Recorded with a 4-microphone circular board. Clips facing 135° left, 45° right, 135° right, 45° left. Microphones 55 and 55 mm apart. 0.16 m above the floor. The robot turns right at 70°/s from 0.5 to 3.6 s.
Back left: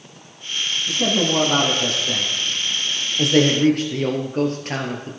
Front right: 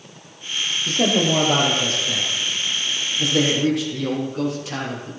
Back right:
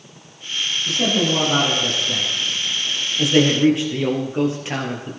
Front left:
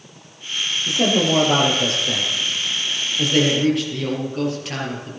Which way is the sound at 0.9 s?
30° right.